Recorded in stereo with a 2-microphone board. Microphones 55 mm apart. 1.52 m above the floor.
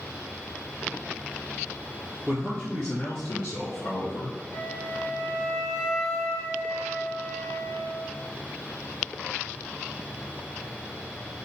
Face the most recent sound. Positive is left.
turn(degrees=75)  # may be behind; listen again after turning